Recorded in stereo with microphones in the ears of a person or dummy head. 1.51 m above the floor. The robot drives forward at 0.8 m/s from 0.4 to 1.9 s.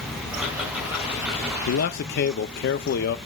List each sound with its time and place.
0.3 s ticking: 10° right (ahead or behind), 3 m; by 1.6 s 5° right (ahead or behind), 4 m
1.7 s a man speaking: 70° left (ahead or behind), 0.6 m; by 3.2 s 55° left (ahead or behind), 0.7 m